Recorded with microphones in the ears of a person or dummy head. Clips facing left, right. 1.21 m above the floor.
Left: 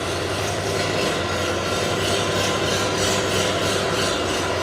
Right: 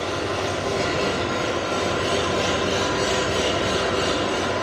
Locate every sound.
0.0 s an engine running: 20° left (ahead or behind), 3.5 m